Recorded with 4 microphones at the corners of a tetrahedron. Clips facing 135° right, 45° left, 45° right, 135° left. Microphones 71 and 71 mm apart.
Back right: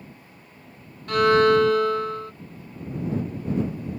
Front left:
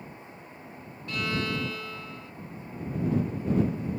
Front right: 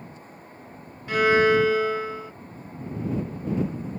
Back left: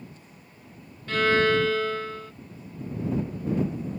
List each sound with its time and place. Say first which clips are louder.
1.1 s a violin: back right 14 dB, front right 3 dB; 120° right